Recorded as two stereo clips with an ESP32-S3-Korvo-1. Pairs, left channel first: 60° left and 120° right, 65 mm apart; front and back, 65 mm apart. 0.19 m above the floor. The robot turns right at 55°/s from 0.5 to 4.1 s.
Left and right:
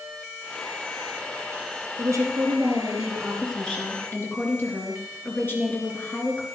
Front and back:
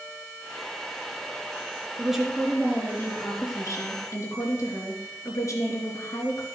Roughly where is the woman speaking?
Right.